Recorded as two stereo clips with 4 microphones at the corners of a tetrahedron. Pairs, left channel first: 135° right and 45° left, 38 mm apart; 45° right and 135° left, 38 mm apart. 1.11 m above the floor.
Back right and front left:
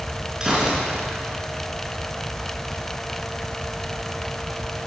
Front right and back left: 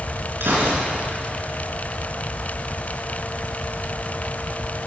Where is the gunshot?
120° left, 4.5 m.